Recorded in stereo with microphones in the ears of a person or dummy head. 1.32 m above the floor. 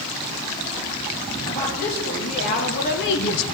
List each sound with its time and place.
1.4 s a woman speaking: 40° left (ahead or behind), 3.5 m; by 3.5 s 65° left (ahead or behind), 0.7 m